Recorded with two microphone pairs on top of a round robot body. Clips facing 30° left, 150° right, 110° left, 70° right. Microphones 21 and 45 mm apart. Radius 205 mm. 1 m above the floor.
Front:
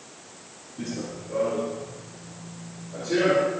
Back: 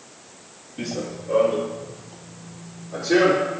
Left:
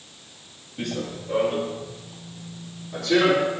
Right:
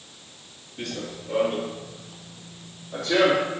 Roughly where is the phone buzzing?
I don't hear a phone buzzing.